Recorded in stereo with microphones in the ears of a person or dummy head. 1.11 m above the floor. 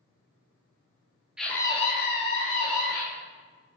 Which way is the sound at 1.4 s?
Centre (ahead or behind).